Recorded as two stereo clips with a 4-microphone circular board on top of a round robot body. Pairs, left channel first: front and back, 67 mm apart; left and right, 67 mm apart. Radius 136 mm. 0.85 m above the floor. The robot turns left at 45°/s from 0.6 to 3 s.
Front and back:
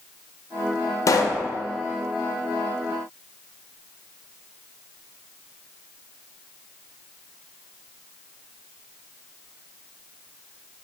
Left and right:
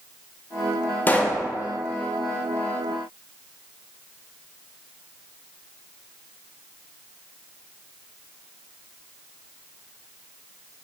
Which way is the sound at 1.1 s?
30° left.